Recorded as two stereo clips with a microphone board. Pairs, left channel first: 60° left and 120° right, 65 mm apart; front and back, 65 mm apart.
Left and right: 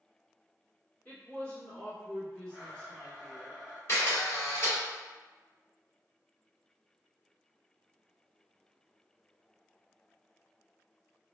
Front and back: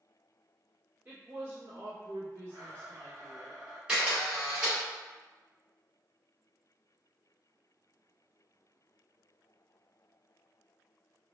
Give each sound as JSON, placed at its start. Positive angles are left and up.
{"t": 1.1, "sound": "a woman speaking", "azimuth_deg": 125, "distance_m": 1.6}
{"t": 2.5, "sound": "a blender", "azimuth_deg": 165, "distance_m": 1.5}
{"t": 3.9, "sound": "a camera shutter", "azimuth_deg": 105, "distance_m": 1.9}